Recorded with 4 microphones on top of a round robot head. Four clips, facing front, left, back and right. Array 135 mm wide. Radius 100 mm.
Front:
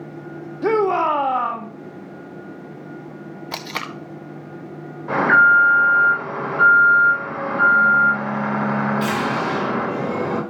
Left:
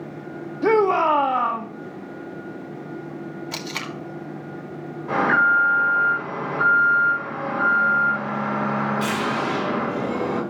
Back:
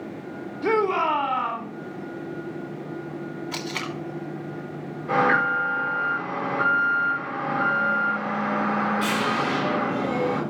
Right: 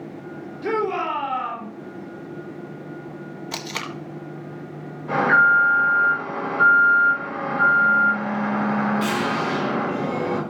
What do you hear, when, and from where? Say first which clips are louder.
0.6 s a shout: left 6 dB, front 4 dB; 45° left, 1.6 m
3.5 s tape being pulled: even, front 4 dB; 15° right, 1.4 m
5.1 s an alarm: right 2 dB, front 7 dB; 10° left, 7 m